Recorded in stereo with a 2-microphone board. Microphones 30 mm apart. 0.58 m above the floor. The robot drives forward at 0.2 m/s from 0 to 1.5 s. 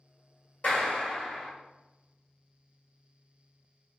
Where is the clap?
55° left (ahead or behind), 1.7 m; by 1.5 s 50° left (ahead or behind), 1.8 m.